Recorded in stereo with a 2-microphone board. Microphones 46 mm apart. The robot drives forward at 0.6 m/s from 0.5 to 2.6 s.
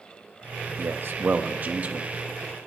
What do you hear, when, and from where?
0.8 s a man speaking: 60° right (ahead or behind), 0.8 m; by 2.1 s 30° right (ahead or behind), 1.4 m